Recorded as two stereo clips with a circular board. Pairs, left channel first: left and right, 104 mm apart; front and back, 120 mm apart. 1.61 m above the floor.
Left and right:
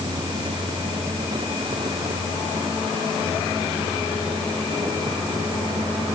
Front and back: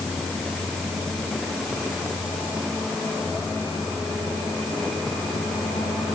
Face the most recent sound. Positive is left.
No sound to turn to.